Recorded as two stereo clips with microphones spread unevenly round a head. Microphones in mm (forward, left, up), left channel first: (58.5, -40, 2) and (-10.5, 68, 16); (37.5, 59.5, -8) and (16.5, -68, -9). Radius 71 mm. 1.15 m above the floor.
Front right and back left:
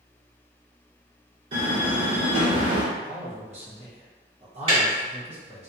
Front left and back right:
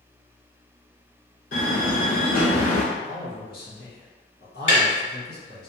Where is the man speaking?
85° left, 1.4 m.